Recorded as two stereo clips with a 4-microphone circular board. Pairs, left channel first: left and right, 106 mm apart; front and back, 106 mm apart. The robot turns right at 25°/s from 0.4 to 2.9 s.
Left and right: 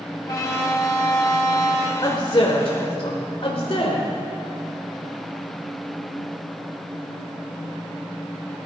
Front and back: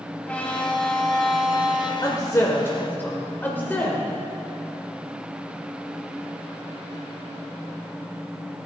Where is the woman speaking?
45° left, 1.5 m; by 4.0 s 70° left, 1.5 m.